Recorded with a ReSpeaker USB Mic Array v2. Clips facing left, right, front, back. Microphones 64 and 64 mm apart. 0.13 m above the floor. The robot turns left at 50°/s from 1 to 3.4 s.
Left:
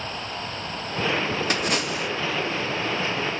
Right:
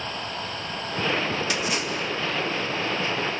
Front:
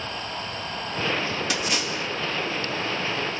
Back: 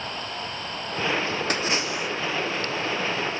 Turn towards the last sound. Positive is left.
turn(degrees=40)